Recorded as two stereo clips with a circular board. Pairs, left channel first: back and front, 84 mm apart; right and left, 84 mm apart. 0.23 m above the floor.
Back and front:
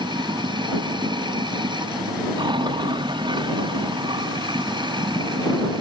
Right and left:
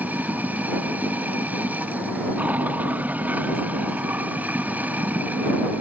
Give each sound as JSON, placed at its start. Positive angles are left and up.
{"t": 0.0, "sound": "running water", "azimuth_deg": 20}